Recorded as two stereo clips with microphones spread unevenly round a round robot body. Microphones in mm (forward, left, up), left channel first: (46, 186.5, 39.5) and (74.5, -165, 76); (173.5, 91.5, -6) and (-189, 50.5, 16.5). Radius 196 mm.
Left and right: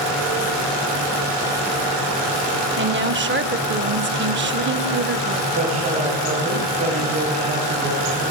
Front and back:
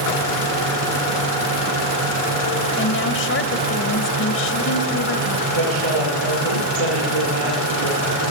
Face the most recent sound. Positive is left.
turn(degrees=-160)